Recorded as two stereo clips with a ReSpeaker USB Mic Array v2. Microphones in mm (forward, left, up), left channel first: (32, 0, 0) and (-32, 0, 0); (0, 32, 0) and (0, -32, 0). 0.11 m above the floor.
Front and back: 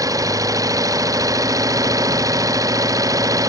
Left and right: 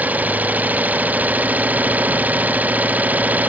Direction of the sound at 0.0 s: 155° right.